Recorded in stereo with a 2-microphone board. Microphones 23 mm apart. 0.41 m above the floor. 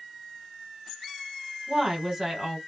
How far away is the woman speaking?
About 1.5 m.